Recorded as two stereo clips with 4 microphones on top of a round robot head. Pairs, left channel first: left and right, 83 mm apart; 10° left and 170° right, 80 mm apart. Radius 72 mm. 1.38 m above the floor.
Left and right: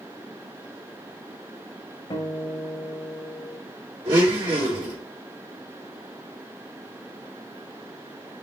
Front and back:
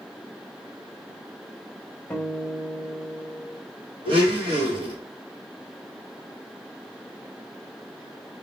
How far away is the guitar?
About 1.5 m.